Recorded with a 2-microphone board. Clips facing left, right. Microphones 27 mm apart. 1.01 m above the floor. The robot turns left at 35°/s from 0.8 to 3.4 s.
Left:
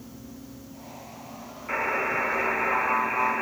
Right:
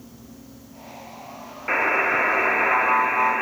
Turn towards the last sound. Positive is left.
turn(degrees=-140)